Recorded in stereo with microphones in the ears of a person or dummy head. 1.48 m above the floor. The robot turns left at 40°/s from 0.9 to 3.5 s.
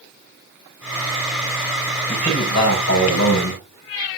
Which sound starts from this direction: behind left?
A man speaking, at 2.1 s.